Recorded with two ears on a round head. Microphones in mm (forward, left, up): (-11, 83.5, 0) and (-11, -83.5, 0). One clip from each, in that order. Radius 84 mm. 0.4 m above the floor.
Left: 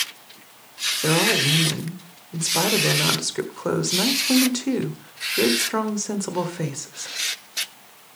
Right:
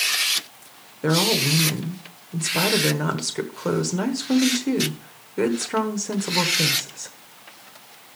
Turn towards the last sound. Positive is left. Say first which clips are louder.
# even
turn(degrees=10)  # may be behind; listen again after turning